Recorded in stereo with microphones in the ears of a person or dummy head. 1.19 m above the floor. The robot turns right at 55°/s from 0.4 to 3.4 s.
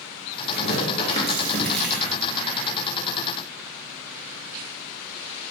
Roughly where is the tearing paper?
Left.